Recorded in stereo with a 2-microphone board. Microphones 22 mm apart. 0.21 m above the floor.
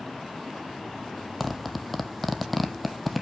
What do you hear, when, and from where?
1.4 s a zipper: 5° right (ahead or behind), 1.1 m